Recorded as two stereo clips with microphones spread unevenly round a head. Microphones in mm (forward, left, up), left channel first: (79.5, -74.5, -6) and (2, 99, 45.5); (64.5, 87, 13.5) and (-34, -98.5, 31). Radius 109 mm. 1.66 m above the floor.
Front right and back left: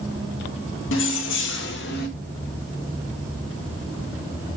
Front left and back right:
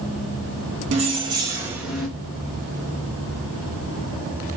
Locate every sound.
0.9 s keys jangling: 85° right, 1.1 m; by 2.1 s 30° right, 1.3 m